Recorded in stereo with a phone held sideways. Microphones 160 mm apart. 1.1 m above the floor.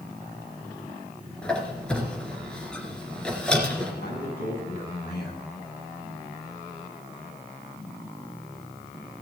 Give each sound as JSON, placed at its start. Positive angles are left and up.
{"t": 1.4, "sound": "a squeak", "side_deg": 5, "distance_m": 2.5}
{"t": 4.0, "sound": "a man speaking", "side_deg": 80, "distance_m": 6.5}